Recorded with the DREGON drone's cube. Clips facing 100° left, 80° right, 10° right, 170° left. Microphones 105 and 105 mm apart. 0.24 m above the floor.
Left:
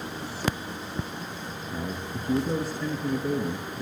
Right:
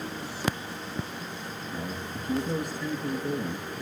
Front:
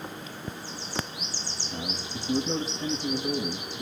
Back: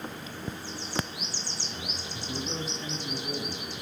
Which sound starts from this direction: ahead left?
A man speaking, at 1.7 s.